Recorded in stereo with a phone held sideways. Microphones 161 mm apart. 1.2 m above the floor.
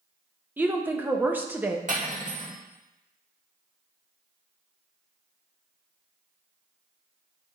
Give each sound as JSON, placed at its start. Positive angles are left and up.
{"t": 0.6, "sound": "a woman speaking", "side_deg": -10, "distance_m": 0.7}
{"t": 1.9, "sound": "cutlery clinking", "side_deg": -55, "distance_m": 1.5}